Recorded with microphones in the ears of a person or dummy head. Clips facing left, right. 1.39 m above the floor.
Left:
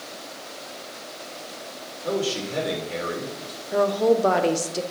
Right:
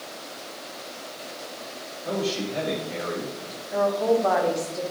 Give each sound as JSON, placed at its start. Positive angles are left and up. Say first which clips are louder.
{"t": 2.0, "sound": "a man speaking", "louder": "left 1 dB", "side_deg": 55, "distance_m": 2.5}
{"t": 3.7, "sound": "a woman speaking", "louder": "left 2 dB", "side_deg": 40, "distance_m": 0.8}